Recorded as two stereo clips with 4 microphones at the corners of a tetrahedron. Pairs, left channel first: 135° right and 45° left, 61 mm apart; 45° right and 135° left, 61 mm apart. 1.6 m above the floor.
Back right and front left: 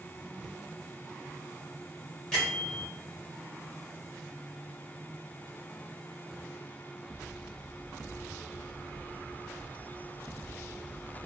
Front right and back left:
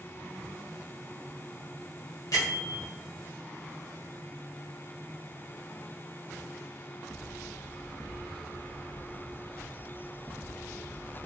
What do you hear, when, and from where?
2.3 s a bell: 60° right, 1.1 m